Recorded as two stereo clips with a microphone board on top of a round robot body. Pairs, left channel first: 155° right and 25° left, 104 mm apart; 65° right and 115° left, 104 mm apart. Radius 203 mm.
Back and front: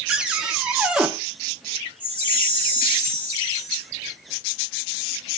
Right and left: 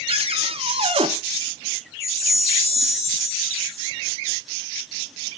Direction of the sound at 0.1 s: 105° left.